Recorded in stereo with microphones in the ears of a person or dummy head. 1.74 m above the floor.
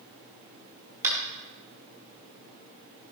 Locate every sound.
1.0 s tapping: 10° right (ahead or behind), 4 m